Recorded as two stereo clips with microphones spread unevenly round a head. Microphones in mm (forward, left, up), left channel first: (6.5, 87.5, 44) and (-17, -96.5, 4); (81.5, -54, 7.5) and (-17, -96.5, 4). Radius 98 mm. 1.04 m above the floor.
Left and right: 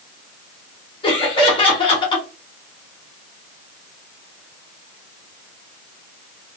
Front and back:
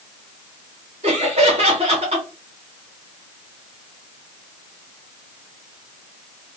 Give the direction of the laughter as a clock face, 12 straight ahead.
7 o'clock.